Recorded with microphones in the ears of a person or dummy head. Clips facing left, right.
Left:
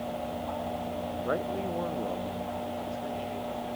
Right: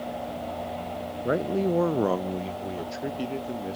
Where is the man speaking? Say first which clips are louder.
Right 8 dB; 25° right (ahead or behind), 0.6 m; by 3.8 s 70° right (ahead or behind), 1.6 m.